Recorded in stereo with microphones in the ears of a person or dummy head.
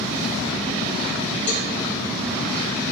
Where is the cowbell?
65° left (ahead or behind), 3 m.